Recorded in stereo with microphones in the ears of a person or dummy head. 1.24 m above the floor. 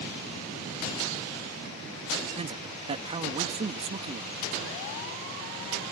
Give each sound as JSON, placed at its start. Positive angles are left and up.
{"t": 2.4, "sound": "a man speaking", "side_deg": -35}